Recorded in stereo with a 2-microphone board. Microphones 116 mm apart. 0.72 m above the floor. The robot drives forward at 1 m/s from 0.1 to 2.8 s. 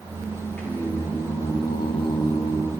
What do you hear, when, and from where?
0.6 s singing: 10° left (ahead or behind), 1.5 m; by 2.7 s 20° left (ahead or behind), 0.9 m